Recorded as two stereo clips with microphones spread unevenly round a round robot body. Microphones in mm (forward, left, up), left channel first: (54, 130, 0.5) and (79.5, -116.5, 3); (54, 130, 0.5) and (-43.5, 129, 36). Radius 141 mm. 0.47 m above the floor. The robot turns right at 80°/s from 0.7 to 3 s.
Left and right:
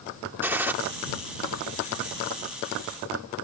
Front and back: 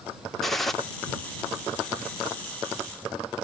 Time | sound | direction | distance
0.4 | a gunshot | 15° right | ?